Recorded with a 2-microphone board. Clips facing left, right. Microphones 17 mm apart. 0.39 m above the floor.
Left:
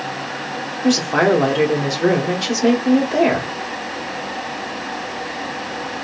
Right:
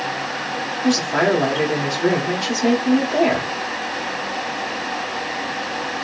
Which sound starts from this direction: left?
A woman speaking, at 0.8 s.